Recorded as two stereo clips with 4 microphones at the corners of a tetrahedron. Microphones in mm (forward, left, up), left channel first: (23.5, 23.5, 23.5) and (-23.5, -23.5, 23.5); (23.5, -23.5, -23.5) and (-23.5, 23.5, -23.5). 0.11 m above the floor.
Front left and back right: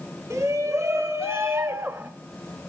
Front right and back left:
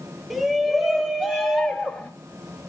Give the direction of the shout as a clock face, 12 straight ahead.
4 o'clock.